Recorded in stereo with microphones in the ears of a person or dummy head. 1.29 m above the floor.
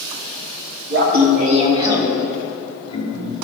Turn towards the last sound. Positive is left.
turn(degrees=45)  # may be behind; listen again after turning